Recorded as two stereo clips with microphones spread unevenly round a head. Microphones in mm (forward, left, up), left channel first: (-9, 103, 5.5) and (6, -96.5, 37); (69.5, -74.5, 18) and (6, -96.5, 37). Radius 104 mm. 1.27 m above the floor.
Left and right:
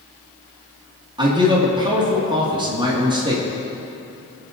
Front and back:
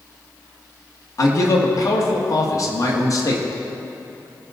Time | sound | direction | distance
1.2 | a man speaking | 15° right | 1.9 m